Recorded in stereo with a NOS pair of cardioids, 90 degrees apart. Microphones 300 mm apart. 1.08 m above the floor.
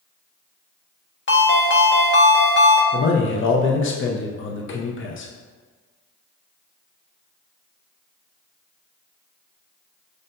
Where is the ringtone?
40° left, 1.0 m.